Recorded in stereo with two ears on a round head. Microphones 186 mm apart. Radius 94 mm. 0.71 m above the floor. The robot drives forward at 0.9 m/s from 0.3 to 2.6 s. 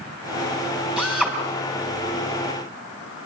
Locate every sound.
1.0 s a drill: 5° right (ahead or behind), 5 m